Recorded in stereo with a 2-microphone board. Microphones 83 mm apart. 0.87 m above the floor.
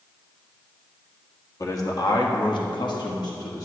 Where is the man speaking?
40° left (ahead or behind), 1.3 m; by 3.6 s 50° left (ahead or behind), 1.4 m.